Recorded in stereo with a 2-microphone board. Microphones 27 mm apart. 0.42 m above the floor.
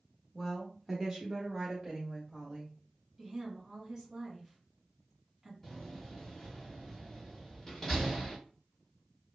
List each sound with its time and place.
0.3 s a woman speaking: 15° left (ahead or behind), 1.0 m; by 2.8 s 25° right (ahead or behind), 2 m
3.2 s a woman speaking: 25° right (ahead or behind), 2 m
5.6 s a door slam: 10° left (ahead or behind), 1.5 m